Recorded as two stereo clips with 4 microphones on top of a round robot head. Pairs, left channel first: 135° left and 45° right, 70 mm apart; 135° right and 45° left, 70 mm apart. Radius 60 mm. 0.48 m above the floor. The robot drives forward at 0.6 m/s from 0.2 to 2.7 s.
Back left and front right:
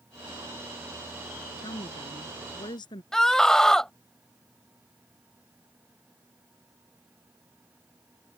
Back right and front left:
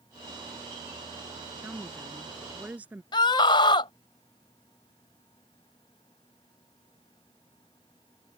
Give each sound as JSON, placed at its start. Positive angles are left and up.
{"t": 1.6, "sound": "a woman speaking", "azimuth_deg": 110}
{"t": 3.1, "sound": "a scream", "azimuth_deg": -140}